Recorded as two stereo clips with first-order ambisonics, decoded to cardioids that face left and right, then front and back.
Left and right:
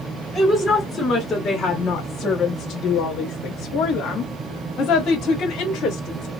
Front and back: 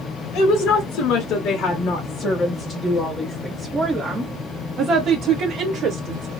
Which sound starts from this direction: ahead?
A woman speaking, at 0.3 s.